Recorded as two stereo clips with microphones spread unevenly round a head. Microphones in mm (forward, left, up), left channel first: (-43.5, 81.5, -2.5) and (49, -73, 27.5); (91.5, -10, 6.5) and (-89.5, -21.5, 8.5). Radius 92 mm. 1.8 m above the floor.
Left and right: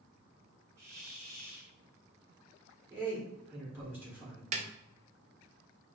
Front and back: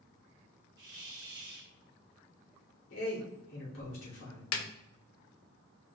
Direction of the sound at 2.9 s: 20° left.